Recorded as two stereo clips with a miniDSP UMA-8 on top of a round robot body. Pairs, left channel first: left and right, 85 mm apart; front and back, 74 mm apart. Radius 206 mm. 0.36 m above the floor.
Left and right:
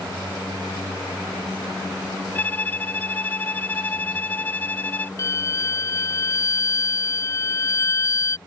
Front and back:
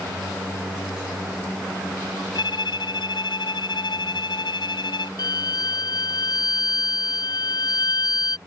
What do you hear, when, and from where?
2.4 s a violin: 20° left
5.2 s a violin: 35° left